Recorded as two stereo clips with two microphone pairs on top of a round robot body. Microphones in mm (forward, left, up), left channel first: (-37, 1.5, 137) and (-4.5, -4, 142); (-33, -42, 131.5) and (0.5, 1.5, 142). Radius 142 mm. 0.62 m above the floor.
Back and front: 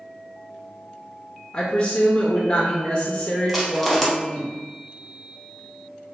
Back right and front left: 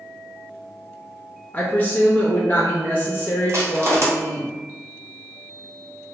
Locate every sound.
1.5 s a woman speaking: 160° right, 0.7 m
3.5 s crushing: 90° left, 0.8 m